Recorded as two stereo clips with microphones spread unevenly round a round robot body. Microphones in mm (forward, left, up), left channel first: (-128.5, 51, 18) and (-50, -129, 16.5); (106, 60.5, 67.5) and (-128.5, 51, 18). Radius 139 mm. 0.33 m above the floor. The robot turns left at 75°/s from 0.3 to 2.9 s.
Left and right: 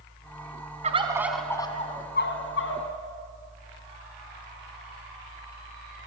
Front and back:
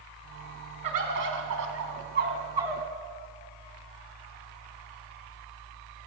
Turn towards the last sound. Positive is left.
turn(degrees=85)